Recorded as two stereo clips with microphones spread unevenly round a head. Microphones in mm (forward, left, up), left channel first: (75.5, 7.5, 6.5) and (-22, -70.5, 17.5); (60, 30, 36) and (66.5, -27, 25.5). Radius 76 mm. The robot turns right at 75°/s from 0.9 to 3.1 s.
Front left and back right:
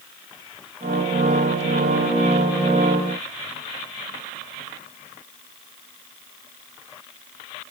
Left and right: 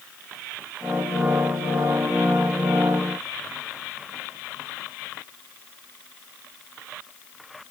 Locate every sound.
Only background noise.